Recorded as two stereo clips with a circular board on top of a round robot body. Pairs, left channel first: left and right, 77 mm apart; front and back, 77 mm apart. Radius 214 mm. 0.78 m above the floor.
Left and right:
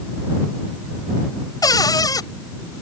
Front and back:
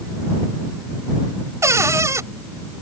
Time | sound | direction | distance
1.6 | a cupboard door | 130° left | ?